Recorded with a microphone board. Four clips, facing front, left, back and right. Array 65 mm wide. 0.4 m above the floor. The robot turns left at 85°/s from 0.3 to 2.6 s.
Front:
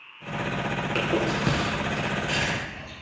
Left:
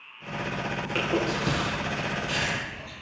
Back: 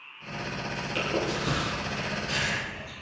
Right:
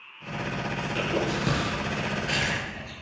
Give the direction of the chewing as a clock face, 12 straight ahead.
11 o'clock.